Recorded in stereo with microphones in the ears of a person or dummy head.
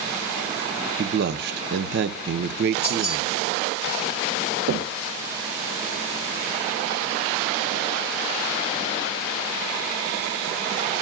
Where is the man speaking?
55° right (ahead or behind), 0.8 m.